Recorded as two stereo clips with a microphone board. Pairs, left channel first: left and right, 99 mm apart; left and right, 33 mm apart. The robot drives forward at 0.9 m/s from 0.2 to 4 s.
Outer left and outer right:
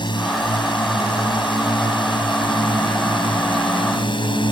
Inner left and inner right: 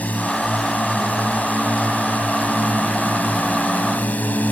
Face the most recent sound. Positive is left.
turn(degrees=55)  # may be behind; listen again after turning